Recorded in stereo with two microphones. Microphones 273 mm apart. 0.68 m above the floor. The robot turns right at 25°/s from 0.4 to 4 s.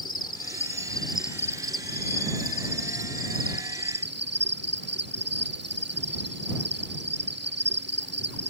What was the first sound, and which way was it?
An insect, 165° left.